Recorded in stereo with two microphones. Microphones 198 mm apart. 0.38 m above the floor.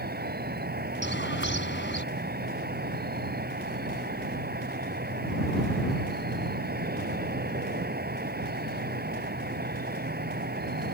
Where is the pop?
I don't hear a pop.